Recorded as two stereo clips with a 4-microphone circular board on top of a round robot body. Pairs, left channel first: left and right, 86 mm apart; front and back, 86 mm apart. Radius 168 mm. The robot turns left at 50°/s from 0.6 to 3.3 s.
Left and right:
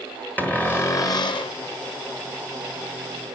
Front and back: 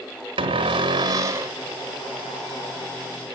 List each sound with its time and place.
0.4 s a cupboard door: 160° left, 1.1 m; by 1.5 s 115° left, 1.1 m